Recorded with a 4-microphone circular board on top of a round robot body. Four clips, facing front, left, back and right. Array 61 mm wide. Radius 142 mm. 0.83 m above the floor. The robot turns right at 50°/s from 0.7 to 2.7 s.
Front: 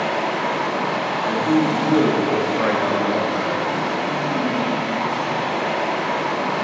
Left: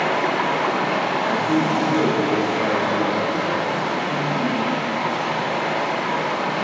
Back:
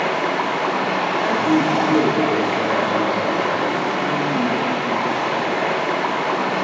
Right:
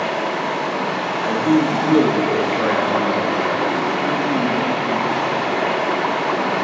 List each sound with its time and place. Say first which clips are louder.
0.0 s running water: left 1 dB, back 1 dB; 135° left, 1.0 m; by 6.7 s 125° right, 1.0 m
1.2 s a man speaking: right 3 dB, even; 105° right, 2.0 m; by 3.6 s 35° right, 2.0 m